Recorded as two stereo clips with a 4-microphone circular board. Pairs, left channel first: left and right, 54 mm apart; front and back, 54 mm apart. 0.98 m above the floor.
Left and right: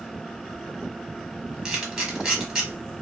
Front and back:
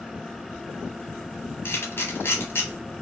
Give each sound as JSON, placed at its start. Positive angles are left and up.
{"t": 1.6, "sound": "a camera shutter", "azimuth_deg": -20, "distance_m": 1.0}